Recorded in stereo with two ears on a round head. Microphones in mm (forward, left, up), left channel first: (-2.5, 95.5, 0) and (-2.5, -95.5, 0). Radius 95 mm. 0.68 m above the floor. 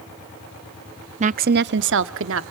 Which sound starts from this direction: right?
A woman speaking, at 1.2 s.